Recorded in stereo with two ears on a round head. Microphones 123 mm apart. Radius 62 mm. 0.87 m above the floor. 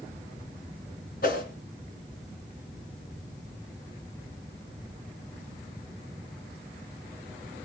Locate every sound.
1.2 s a whoosh: 70° left (ahead or behind), 3.5 m